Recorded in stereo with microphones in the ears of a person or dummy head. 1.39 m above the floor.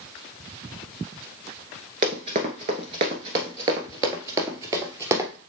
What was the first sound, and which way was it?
Running footsteps, 25° right (ahead or behind).